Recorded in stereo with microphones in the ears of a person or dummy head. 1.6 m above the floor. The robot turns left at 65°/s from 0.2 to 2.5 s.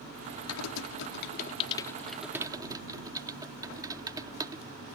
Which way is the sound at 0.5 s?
70° left (ahead or behind).